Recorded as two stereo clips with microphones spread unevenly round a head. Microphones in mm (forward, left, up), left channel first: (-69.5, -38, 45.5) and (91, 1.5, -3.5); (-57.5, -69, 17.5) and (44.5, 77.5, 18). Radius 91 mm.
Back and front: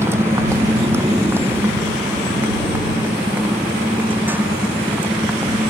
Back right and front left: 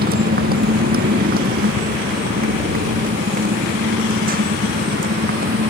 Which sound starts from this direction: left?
A motorcycle, at 0.0 s.